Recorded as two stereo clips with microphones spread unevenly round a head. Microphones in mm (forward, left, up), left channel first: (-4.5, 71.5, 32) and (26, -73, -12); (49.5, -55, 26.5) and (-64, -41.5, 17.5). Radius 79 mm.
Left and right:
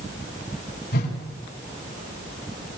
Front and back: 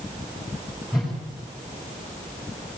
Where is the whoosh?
85° left, 5.5 m.